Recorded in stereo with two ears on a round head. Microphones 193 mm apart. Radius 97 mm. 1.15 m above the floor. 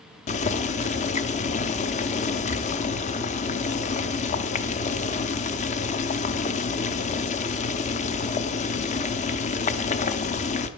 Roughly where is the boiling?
Left.